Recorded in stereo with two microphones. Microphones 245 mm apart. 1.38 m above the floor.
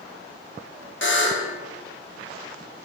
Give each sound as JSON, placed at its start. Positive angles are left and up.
{"t": 1.0, "sound": "a buzzer", "side_deg": 50, "distance_m": 0.6}